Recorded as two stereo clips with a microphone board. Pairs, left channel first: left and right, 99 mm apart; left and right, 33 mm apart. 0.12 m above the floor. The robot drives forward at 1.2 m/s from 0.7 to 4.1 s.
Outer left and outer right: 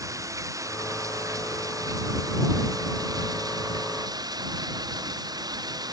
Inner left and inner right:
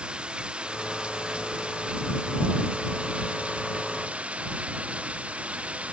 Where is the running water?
35° right (ahead or behind); by 5.9 s 40° right (ahead or behind).